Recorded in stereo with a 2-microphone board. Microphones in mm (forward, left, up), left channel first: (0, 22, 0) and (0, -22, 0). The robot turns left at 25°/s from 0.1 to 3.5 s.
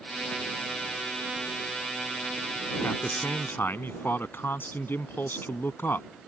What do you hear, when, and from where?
2.8 s a man speaking: 70° left (ahead or behind); by 6.1 s 55° left (ahead or behind)